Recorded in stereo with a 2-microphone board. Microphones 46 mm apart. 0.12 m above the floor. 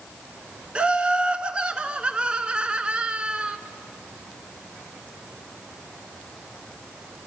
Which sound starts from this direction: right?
Laughter, at 0.8 s.